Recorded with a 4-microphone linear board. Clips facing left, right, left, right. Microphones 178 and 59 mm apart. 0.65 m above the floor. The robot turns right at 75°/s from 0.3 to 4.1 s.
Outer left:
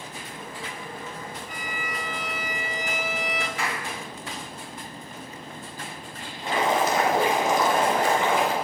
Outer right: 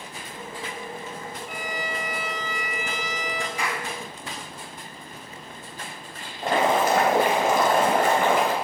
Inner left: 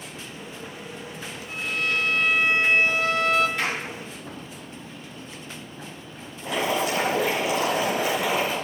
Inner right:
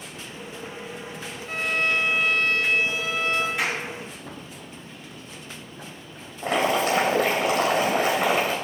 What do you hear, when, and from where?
1.5 s a violin: 60° right, 0.6 m; by 3.5 s 90° left, 0.6 m
3.6 s a clap: 10° right (ahead or behind), 7.5 m; by 3.8 s 30° right (ahead or behind), 7.5 m
6.4 s boiling: 60° right (ahead or behind), 3.5 m